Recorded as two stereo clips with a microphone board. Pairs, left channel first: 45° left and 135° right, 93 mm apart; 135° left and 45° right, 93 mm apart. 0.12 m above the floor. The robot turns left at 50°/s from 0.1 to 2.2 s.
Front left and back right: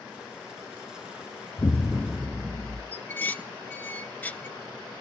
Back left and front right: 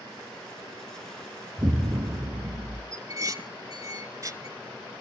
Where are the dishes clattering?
20° right, 1.2 m.